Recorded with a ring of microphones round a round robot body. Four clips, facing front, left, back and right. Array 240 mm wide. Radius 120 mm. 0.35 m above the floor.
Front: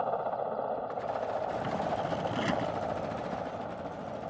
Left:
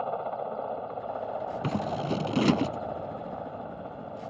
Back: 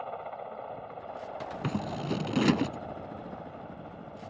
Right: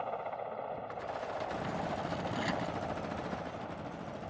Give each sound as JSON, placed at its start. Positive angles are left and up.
{"t": 0.0, "sound": "a helicopter", "azimuth_deg": 40}
{"t": 1.6, "sound": "scissors", "azimuth_deg": 125}